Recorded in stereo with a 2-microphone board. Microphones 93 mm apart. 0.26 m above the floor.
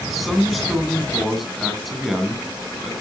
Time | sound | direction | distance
0.1 | a man speaking | centre (ahead or behind) | 2.5 m